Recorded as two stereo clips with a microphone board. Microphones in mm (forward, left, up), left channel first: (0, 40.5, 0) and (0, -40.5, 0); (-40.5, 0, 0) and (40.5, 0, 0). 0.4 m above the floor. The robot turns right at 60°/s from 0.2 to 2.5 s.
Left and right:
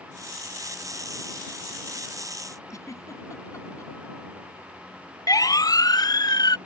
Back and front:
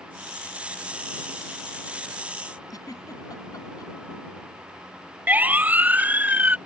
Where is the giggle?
140° left.